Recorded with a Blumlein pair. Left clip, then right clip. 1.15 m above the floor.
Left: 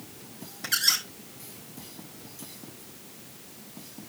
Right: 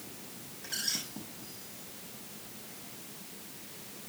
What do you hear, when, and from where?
0.6 s a squeak: 55° left, 3.5 m